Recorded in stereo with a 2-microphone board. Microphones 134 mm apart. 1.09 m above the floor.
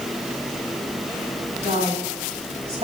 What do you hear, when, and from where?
1.6 s a woman speaking: 50° right (ahead or behind), 6 m